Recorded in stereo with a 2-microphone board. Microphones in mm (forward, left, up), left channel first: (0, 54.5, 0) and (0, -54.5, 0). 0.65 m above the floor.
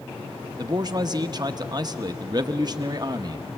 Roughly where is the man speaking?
Right.